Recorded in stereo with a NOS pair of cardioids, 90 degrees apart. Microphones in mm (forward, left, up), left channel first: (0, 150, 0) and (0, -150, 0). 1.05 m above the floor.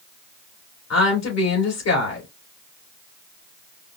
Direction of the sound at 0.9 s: 60° left.